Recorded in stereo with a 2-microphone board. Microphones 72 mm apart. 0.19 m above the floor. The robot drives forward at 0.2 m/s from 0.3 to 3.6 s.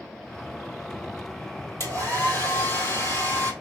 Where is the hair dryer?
40° left (ahead or behind), 2 m; by 3.5 s 35° left (ahead or behind), 2.5 m.